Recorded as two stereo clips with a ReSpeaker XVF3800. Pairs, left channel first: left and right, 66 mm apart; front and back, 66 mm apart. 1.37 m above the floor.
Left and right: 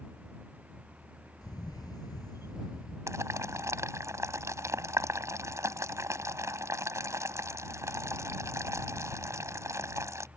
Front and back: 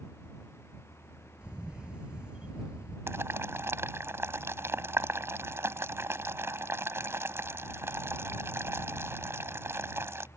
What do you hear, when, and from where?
1.4 s a camera shutter: 105° left
3.1 s boiling: 130° right